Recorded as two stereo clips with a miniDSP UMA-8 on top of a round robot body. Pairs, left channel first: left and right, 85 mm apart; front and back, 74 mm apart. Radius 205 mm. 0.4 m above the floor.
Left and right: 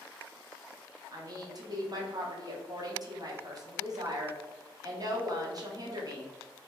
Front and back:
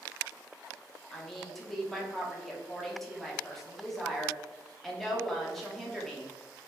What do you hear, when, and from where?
1.1 s a woman speaking: 90° right, 1.1 m